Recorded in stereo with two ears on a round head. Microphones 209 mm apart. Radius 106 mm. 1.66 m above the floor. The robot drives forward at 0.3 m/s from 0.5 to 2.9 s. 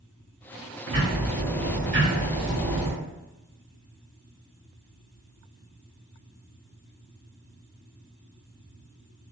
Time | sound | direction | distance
0.9 | ticking | 25° right (ahead or behind) | 1.7 m